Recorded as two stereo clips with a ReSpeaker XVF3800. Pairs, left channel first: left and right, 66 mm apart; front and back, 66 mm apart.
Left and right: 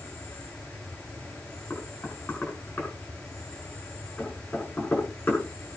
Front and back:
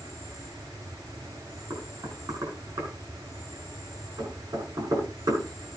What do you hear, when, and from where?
0.0 s an insect: 160° left, 9 m
1.7 s knocking: 155° left, 7 m